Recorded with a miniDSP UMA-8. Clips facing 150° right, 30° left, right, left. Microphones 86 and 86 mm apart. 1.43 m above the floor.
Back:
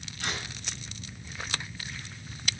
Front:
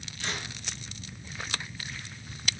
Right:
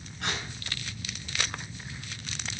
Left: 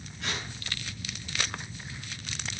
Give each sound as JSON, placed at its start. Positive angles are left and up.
{"t": 0.2, "sound": "tearing paper", "azimuth_deg": -115, "distance_m": 6.5}